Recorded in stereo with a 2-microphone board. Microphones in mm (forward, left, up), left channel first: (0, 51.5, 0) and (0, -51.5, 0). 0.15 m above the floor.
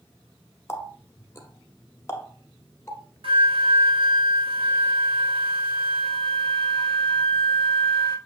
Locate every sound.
0.7 s a running tap: 30° left (ahead or behind), 1.0 m
3.2 s a flute: 65° right (ahead or behind), 1.3 m